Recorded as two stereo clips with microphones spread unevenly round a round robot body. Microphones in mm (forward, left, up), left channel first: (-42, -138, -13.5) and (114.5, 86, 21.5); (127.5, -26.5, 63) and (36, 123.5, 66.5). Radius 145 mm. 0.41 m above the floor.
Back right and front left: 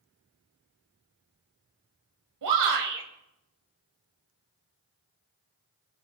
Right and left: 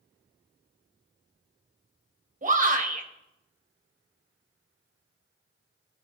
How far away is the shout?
About 2.5 m.